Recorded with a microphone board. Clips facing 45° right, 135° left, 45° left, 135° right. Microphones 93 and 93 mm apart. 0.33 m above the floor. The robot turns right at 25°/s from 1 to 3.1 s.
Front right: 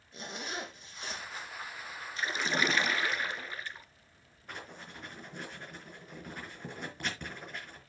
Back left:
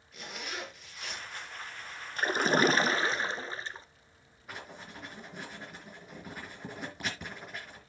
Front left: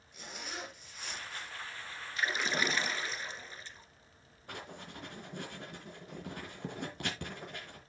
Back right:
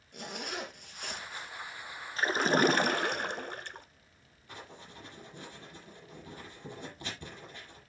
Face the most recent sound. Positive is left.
turn(degrees=50)